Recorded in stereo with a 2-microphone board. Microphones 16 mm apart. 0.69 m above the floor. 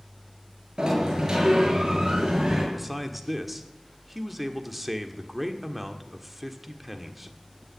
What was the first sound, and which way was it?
A sliding door, 45° right (ahead or behind).